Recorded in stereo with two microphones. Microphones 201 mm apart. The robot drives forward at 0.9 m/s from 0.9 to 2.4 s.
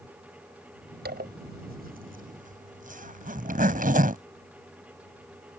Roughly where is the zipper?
Right.